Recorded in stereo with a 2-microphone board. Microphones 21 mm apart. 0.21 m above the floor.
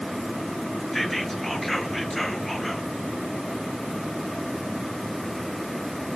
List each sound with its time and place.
0.9 s whispering: 10° left (ahead or behind), 3 m